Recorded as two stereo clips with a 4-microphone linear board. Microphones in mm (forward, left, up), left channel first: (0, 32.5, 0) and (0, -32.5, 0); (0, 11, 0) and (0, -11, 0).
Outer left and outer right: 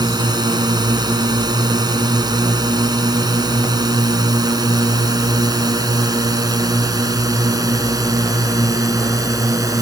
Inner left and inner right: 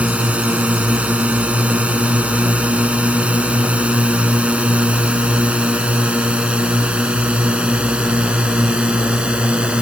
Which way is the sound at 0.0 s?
80° right.